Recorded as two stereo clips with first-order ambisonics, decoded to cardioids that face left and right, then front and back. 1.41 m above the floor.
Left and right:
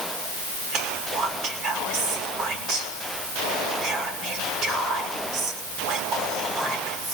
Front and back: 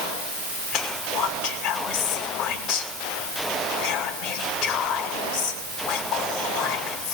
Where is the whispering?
40° right, 6 m.